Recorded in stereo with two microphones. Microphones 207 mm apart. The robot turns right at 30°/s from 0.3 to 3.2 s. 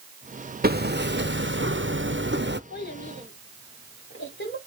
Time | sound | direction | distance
0.6 | hammering | 125° right | 0.6 m
2.7 | a child speaking | 50° left (ahead or behind) | 4.5 m